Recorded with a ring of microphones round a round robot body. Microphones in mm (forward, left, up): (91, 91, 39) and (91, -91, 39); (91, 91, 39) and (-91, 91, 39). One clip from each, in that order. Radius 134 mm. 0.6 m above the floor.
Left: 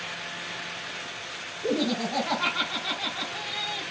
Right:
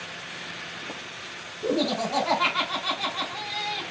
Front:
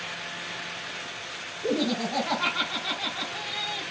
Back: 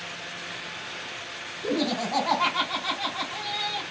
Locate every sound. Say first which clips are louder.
1.6 s laughter: right 2 dB, even; 115° right, 4 m